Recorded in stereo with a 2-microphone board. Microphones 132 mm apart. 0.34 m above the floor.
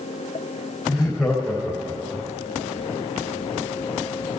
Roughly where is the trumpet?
I don't hear a trumpet.